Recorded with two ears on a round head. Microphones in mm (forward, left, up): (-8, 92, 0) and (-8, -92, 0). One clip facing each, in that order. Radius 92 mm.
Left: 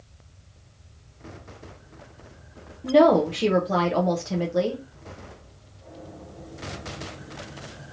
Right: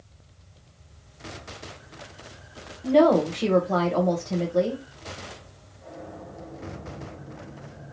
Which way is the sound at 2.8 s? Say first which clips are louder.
Left 1 dB; 10° left (ahead or behind).